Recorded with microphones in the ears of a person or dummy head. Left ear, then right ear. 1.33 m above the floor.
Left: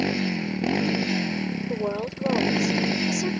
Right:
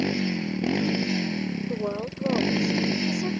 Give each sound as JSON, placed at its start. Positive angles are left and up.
{"t": 0.0, "sound": "a motorcycle", "side_deg": 30}
{"t": 1.7, "sound": "a woman speaking", "side_deg": 40}